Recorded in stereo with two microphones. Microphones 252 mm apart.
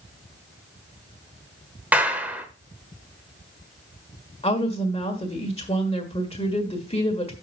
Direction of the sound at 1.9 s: 5° right (ahead or behind).